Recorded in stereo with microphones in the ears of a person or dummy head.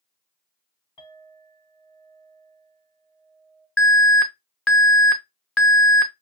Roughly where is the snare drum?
I don't hear a snare drum.